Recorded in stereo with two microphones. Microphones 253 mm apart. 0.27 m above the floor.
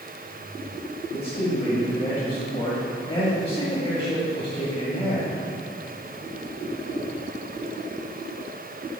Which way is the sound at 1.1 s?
25° left (ahead or behind).